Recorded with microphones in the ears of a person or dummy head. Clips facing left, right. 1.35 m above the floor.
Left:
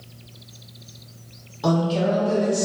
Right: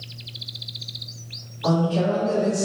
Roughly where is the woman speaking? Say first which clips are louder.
Even; left.